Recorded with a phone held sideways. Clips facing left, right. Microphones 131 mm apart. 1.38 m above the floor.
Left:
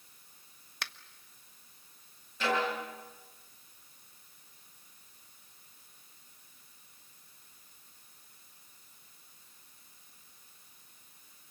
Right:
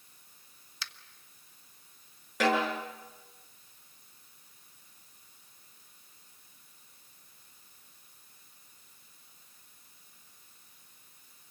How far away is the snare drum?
About 7.5 m.